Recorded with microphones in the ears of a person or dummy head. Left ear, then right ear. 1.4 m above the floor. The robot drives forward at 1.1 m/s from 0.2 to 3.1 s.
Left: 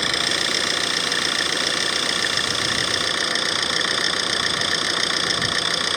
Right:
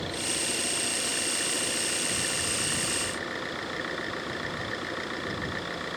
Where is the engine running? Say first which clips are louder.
Left 11 dB; 65° left (ahead or behind); by 6.0 s 75° left (ahead or behind).